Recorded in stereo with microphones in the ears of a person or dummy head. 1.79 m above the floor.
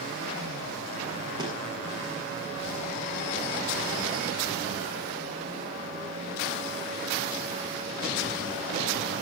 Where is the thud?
15° right (ahead or behind), 8 m.